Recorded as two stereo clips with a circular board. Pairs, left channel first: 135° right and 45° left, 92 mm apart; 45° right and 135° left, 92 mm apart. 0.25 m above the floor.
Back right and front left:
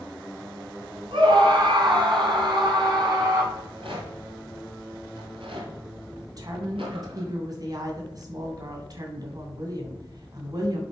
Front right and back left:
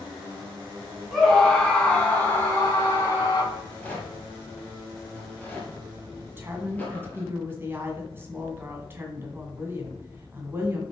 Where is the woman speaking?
75° left, 2 m.